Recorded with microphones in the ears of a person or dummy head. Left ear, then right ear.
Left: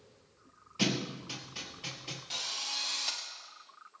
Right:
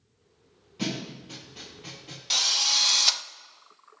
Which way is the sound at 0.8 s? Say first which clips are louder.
Left 1 dB; 35° left (ahead or behind).